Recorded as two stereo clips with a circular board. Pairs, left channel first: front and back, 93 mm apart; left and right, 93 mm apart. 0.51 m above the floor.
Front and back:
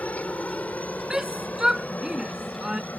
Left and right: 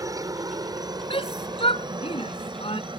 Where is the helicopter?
70° right.